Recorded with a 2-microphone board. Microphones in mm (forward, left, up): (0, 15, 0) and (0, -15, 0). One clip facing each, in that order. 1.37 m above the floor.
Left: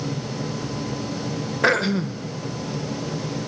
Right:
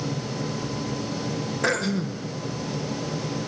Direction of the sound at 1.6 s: 30° left (ahead or behind).